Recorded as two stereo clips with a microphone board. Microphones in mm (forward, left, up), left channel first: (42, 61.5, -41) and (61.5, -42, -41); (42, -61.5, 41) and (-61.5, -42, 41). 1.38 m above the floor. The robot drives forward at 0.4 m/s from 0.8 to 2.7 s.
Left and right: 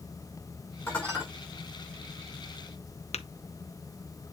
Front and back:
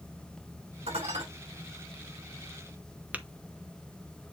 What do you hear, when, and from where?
0.9 s dishes clattering: 175° left, 5.5 m
3.1 s tapping: 95° left, 0.9 m